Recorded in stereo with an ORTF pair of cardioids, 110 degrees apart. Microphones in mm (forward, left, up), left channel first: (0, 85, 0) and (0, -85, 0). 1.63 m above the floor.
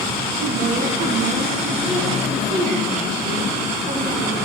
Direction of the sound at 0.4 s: 50° right.